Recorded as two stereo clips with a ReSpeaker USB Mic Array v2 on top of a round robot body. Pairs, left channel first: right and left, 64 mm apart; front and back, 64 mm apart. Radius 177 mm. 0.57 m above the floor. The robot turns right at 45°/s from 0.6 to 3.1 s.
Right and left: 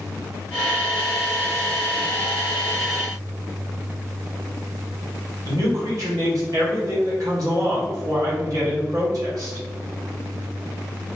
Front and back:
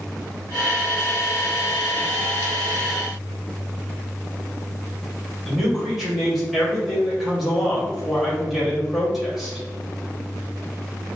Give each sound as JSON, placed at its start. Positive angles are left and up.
{"t": 5.5, "sound": "a man speaking", "azimuth_deg": 95, "distance_m": 2.0}